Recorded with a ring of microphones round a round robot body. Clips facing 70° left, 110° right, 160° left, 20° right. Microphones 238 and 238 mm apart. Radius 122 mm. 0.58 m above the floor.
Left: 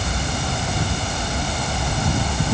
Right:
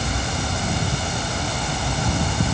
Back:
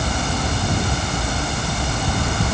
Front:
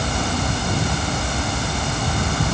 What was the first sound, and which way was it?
Only background noise.